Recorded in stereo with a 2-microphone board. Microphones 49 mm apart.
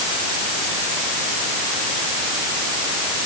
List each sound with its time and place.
Only background noise.